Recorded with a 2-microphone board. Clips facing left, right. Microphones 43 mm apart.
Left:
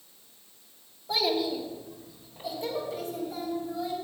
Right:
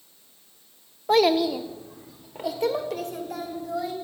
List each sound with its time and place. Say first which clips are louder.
1.1 s a child speaking: right 8 dB; 60° right (ahead or behind), 0.7 m; by 3.9 s 70° right (ahead or behind), 2.5 m